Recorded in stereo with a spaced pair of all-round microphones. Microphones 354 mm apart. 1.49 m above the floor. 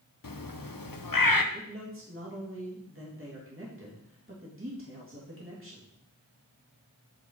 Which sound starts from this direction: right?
A man speaking, at 1.5 s.